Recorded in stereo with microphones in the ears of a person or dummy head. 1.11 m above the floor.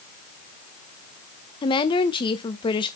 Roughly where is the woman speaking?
Left.